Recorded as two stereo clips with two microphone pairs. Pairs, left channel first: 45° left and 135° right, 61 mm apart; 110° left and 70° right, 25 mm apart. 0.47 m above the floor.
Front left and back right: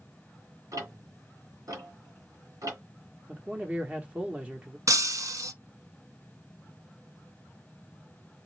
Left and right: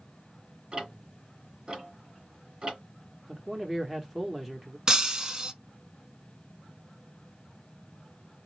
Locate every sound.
0.7 s ticking: 125° right, 2.5 m
3.3 s a man speaking: 125° right, 0.9 m
4.9 s breaking glass: 130° right, 0.7 m